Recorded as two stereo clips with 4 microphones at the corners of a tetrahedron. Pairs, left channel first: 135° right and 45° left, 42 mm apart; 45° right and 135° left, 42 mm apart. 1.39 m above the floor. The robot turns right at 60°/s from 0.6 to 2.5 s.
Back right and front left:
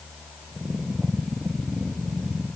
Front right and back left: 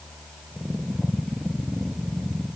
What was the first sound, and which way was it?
Only background noise.